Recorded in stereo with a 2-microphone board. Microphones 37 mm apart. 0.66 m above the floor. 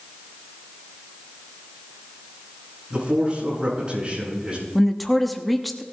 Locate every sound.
2.9 s a man speaking: 30° right (ahead or behind), 8 m
4.8 s a woman speaking: 5° left (ahead or behind), 0.9 m